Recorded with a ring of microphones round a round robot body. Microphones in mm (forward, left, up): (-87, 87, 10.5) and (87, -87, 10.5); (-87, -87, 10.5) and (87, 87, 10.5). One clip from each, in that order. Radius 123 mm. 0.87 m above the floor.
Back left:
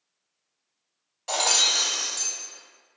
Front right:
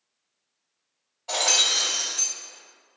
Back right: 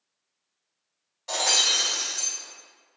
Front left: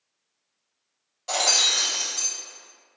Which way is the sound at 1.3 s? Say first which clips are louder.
Even, front left 1 dB; 130° left.